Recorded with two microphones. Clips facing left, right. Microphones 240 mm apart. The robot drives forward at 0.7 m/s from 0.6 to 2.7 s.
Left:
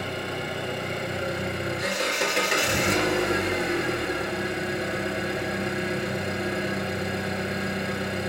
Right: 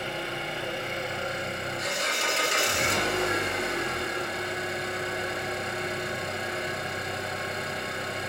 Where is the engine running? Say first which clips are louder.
Left 3 dB; 55° left (ahead or behind), 2.5 m; by 8.3 s 70° left (ahead or behind), 2 m.